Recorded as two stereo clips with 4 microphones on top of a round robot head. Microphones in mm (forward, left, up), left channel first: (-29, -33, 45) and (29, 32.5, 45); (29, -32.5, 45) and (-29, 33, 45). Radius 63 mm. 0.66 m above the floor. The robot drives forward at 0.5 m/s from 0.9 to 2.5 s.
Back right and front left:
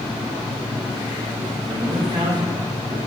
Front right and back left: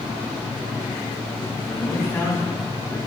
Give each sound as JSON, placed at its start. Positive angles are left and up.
{"t": 1.6, "sound": "a man speaking", "azimuth_deg": 15, "distance_m": 2.5}